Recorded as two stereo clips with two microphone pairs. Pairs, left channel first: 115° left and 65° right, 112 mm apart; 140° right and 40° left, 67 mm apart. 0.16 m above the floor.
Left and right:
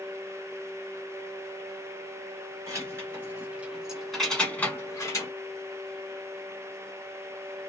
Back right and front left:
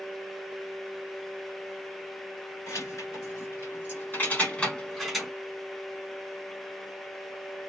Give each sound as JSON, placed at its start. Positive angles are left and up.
{"t": 2.7, "sound": "keys jangling", "azimuth_deg": -120, "distance_m": 1.5}